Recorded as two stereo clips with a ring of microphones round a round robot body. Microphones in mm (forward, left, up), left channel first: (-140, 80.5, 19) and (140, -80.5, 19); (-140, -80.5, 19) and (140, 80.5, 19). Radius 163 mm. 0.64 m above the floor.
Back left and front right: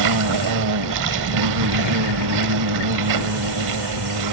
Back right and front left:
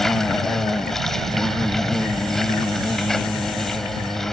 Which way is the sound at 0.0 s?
60° right.